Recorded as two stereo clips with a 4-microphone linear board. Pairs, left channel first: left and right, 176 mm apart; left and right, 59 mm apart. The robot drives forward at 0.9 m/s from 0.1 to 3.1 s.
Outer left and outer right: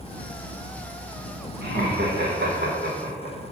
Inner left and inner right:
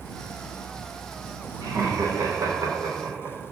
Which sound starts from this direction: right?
Laughter, at 1.6 s.